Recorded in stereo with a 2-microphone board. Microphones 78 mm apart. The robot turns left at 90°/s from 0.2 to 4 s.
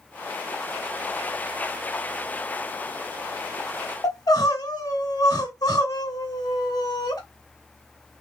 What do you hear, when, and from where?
4.0 s crying: 50° left (ahead or behind), 0.9 m